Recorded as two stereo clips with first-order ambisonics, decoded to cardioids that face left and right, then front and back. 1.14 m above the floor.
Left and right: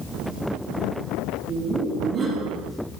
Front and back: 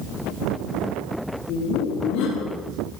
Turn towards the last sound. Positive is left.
turn(degrees=-25)